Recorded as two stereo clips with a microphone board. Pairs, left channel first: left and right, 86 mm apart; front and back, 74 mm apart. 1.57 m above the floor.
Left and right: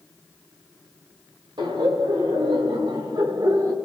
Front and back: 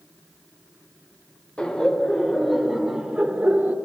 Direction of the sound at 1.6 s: 75° right.